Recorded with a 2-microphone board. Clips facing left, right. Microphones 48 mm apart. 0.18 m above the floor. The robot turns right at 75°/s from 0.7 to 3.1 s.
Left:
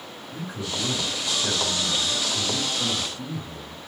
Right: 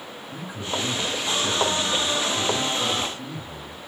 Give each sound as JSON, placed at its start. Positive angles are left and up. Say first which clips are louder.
{"t": 0.3, "sound": "a man speaking", "louder": "right 2 dB", "side_deg": -15, "distance_m": 1.5}